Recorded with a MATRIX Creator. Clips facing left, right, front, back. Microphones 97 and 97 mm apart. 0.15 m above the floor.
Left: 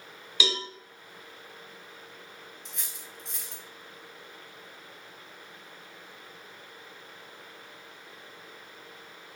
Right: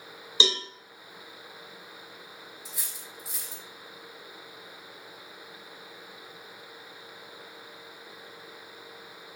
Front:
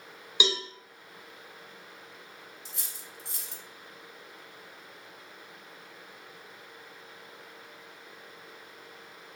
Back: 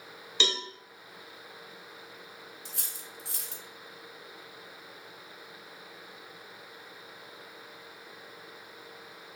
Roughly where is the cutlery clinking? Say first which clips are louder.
Right 1 dB, back 1 dB; behind.